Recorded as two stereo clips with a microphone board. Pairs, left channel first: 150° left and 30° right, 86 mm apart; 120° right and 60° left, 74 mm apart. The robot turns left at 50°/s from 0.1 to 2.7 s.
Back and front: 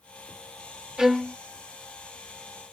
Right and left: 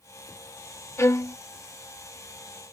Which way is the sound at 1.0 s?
105° right.